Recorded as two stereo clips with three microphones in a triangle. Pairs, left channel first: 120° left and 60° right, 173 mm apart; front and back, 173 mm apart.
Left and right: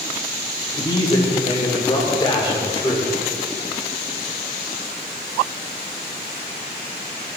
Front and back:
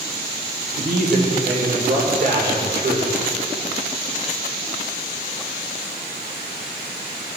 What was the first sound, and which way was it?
A man speaking, straight behind.